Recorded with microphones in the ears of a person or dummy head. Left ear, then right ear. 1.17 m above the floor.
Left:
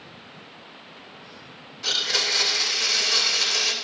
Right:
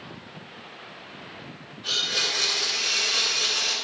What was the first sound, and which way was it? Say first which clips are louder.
A blender: left 2 dB; 60° left (ahead or behind).